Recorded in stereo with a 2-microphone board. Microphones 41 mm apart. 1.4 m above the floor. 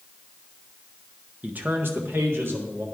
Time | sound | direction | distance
1.4 | a man speaking | 35° right (ahead or behind) | 0.8 m